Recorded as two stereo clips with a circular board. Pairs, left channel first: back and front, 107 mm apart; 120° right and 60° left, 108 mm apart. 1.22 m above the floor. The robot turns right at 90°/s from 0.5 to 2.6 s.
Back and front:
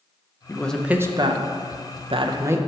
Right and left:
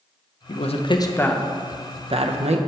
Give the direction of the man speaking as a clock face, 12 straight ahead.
4 o'clock.